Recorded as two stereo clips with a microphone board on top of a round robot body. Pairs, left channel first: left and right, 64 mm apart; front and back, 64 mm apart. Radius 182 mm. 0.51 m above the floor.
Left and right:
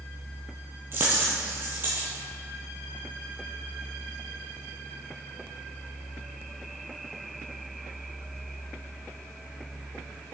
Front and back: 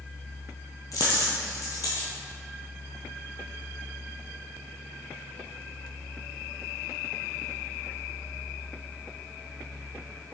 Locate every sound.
0.9 s a dropped coin: 35° right, 0.8 m